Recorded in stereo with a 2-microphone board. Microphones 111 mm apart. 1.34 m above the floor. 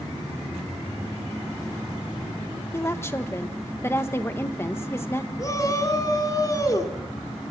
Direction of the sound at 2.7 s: 20° left (ahead or behind).